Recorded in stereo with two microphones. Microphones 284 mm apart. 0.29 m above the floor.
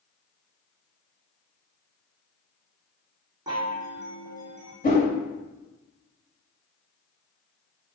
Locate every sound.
3.5 s a chime: 15° right (ahead or behind), 2 m
4.8 s a whoosh: 30° left (ahead or behind), 1.4 m